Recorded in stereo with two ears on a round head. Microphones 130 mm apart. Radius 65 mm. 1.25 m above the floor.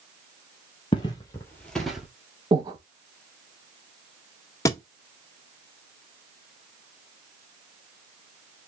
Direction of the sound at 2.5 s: 30° right (ahead or behind).